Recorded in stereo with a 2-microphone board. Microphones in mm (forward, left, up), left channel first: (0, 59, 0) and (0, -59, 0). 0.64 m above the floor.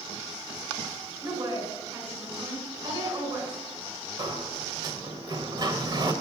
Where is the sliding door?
40° right (ahead or behind), 1.7 m.